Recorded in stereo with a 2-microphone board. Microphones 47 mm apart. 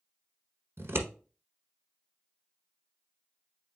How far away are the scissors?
About 1.0 m.